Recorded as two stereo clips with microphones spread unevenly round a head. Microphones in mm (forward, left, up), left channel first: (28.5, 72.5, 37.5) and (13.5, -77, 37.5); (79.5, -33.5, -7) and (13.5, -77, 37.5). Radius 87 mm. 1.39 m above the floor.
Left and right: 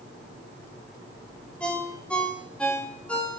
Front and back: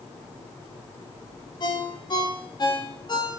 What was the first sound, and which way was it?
A ringtone, straight ahead.